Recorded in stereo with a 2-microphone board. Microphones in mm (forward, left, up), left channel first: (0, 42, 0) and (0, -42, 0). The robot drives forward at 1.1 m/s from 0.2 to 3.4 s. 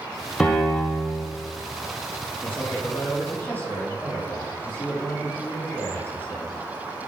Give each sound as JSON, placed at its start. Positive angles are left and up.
{"t": 0.4, "sound": "a piano", "side_deg": 15, "distance_m": 3.0}
{"t": 2.4, "sound": "a man speaking", "side_deg": 25, "distance_m": 5.0}